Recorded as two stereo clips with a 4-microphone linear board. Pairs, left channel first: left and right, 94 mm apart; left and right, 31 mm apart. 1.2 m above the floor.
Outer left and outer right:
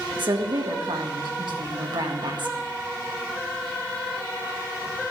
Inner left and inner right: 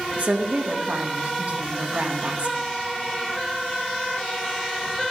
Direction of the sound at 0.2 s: 55° right (ahead or behind).